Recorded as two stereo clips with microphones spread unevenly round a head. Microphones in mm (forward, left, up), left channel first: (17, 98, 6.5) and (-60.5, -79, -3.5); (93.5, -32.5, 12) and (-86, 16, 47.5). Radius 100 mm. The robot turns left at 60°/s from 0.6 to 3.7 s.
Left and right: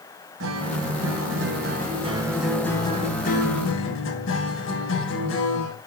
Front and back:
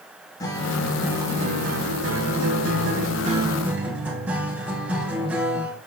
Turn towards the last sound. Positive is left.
turn(degrees=85)